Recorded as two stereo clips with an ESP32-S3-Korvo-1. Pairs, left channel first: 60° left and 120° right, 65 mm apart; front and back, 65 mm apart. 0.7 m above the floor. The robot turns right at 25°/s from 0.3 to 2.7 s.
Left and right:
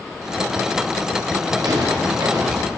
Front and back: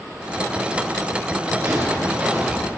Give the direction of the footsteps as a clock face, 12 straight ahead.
4 o'clock.